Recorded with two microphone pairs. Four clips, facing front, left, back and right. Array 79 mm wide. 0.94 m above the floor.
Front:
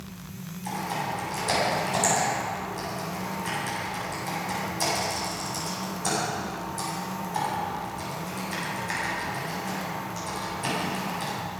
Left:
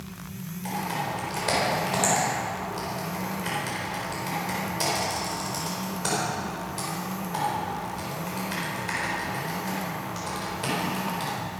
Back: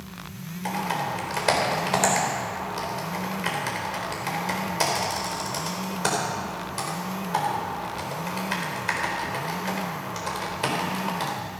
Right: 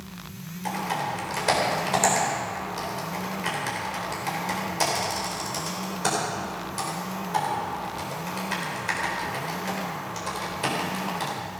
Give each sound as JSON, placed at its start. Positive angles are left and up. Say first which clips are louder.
{"t": 0.7, "sound": "typing on a keyboard", "louder": "right 2 dB, back 3 dB", "azimuth_deg": -165, "distance_m": 4.0}